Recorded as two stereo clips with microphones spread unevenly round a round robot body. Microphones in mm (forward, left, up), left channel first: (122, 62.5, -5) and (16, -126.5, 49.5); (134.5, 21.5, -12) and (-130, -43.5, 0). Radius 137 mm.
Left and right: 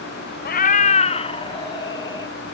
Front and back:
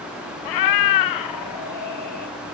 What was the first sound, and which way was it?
A cat meowing, 15° left.